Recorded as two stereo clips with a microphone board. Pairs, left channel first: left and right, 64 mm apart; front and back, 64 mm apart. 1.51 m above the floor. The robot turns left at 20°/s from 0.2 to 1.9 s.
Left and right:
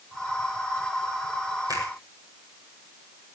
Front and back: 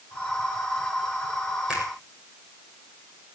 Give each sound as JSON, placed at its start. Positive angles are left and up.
{"t": 1.7, "sound": "a finger snap", "azimuth_deg": -105, "distance_m": 7.0}